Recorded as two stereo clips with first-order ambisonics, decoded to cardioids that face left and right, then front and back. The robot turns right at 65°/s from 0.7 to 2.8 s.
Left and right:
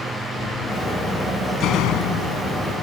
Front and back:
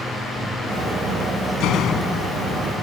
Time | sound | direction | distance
1.6 | a door slam | 35° left | ?